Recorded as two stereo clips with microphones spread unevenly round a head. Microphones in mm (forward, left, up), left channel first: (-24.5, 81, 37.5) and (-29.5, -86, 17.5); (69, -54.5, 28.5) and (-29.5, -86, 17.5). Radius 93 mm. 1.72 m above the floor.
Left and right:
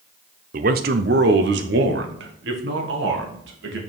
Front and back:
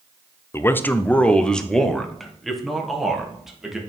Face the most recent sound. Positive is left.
turn(degrees=-75)